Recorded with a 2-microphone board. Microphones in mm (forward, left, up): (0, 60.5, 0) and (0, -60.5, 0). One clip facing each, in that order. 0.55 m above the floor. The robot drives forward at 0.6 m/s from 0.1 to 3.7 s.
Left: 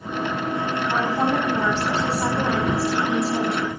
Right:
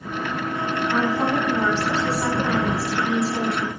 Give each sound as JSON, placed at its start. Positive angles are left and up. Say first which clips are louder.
{"t": 0.9, "sound": "a woman speaking", "louder": "even", "side_deg": 40, "distance_m": 4.0}